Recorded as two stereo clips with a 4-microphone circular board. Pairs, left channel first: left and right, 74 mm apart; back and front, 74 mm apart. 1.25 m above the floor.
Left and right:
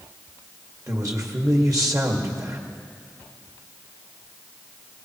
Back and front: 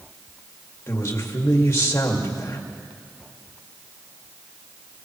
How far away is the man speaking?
About 2 m.